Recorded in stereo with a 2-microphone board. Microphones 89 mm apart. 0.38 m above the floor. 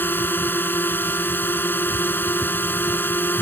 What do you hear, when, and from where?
0.0 s a drone: 25° left (ahead or behind)